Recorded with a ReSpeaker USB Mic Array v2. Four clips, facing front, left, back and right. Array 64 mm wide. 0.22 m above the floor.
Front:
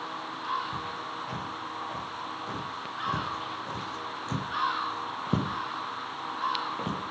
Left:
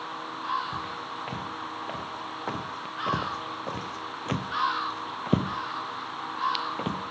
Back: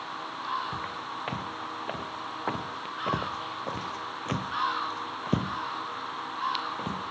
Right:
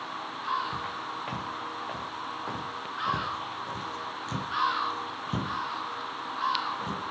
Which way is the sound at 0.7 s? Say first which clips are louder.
Even, even; 175° right.